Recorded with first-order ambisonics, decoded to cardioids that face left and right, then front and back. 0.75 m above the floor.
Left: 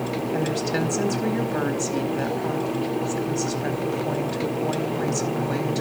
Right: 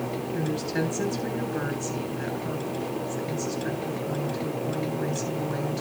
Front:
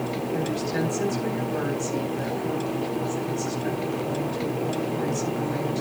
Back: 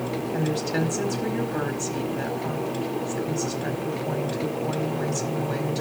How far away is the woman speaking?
About 4.5 m.